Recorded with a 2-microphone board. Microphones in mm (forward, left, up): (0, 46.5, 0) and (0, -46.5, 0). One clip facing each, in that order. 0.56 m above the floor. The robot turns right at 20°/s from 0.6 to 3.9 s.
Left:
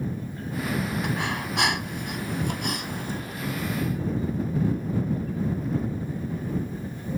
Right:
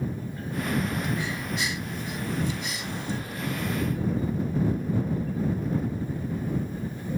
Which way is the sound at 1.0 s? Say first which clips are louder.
Left 2 dB; 85° left.